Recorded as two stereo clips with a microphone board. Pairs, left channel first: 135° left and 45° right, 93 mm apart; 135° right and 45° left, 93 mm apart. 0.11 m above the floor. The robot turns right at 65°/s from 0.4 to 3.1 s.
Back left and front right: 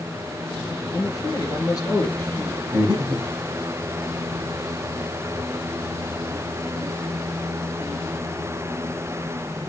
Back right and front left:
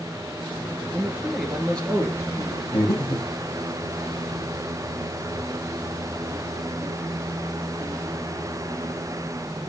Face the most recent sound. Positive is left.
turn(degrees=-75)